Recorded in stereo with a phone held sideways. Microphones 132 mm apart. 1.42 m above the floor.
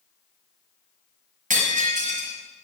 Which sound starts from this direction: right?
Breaking glass, at 1.5 s.